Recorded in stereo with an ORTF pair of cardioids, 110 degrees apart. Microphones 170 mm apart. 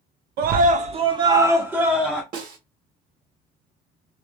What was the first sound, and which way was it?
A scream, 70° right.